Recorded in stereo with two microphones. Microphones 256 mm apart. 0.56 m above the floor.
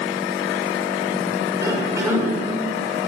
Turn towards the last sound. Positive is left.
turn(degrees=-15)  # may be behind; listen again after turning